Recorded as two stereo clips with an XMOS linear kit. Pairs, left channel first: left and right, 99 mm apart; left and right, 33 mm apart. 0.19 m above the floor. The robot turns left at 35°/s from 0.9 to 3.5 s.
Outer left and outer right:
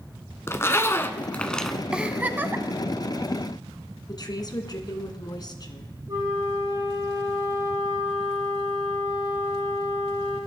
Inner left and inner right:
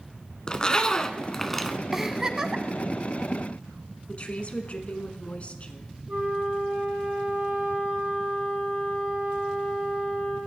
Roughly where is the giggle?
Centre.